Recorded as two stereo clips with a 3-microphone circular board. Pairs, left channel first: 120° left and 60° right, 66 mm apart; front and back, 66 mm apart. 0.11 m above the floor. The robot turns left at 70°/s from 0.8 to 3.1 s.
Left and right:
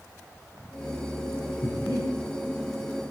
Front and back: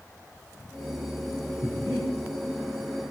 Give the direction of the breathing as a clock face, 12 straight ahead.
7 o'clock.